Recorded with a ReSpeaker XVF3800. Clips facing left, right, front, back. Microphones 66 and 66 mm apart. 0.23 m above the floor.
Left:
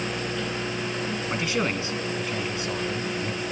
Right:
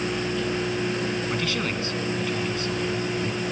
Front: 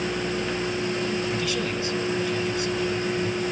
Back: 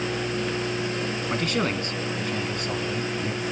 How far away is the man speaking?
About 1.6 m.